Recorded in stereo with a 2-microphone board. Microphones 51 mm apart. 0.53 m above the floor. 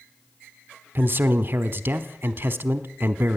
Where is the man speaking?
40° right (ahead or behind), 1.0 m.